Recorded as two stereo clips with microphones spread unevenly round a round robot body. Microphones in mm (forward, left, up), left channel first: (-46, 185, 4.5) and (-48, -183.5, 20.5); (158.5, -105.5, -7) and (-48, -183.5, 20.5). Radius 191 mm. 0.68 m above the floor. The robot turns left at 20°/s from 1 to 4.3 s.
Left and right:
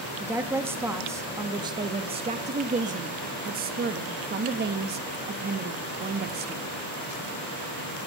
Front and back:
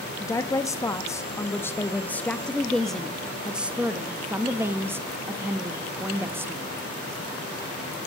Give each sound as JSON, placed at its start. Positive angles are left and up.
{"t": 0.2, "sound": "a woman speaking", "azimuth_deg": -10, "distance_m": 0.7}